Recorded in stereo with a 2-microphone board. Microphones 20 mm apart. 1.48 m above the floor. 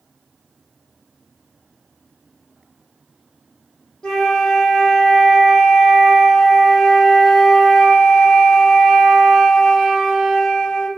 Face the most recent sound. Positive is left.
turn(degrees=50)  # may be behind; listen again after turning